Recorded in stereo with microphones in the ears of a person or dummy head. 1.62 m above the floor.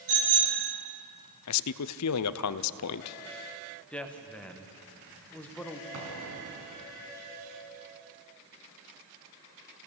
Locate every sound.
0.1 s a bicycle bell: 70° right (ahead or behind), 9 m
1.5 s a man speaking: 85° left, 0.6 m
3.9 s a woman speaking: 5° left (ahead or behind), 1.6 m
5.9 s an explosion: 70° right (ahead or behind), 4 m